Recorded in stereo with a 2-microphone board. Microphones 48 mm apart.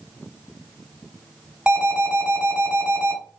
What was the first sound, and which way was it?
An alarm, 25° right (ahead or behind).